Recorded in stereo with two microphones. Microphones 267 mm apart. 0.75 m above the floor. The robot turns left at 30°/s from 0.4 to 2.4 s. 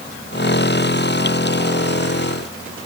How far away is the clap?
No clap in this recording.